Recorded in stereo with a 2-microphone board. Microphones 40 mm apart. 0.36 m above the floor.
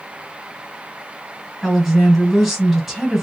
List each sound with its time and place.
1.6 s a woman speaking: 5° right (ahead or behind), 1.6 m